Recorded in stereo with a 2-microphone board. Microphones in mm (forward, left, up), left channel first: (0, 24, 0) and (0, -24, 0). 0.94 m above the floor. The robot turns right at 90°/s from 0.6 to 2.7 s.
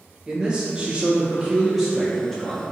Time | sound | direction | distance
0.3 | a man speaking | 15° right (ahead or behind) | 0.5 m